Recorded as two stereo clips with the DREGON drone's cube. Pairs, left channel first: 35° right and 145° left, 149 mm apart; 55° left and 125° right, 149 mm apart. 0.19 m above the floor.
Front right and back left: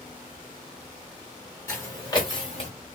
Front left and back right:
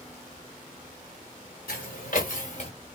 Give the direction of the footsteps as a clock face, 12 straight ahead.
11 o'clock.